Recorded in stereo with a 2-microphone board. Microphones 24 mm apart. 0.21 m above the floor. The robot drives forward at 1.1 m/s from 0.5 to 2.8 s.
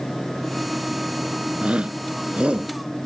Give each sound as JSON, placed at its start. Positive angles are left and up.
{"t": 1.6, "sound": "a shout", "side_deg": -55}